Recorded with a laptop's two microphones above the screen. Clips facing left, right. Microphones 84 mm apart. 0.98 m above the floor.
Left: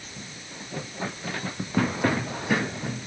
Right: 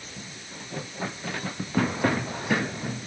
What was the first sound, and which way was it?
Only background noise.